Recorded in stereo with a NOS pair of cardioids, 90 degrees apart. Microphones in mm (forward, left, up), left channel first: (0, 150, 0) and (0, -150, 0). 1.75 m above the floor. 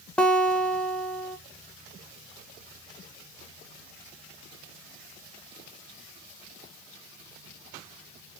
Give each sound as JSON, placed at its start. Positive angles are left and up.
{"t": 0.2, "sound": "a guitar", "azimuth_deg": 5, "distance_m": 0.5}